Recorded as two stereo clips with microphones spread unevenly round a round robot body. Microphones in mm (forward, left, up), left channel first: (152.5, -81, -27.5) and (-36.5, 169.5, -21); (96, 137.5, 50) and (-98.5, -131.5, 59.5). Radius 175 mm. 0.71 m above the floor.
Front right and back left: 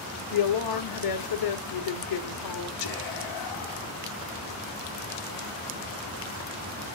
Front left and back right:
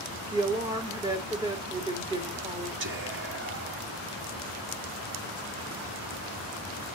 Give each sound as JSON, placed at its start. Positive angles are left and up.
{"t": 0.3, "sound": "a woman speaking", "azimuth_deg": -50, "distance_m": 1.9}
{"t": 2.8, "sound": "whispering", "azimuth_deg": -75, "distance_m": 2.0}